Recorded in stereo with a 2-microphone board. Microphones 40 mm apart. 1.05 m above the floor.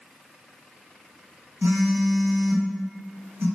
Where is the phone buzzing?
80° right, 0.9 m.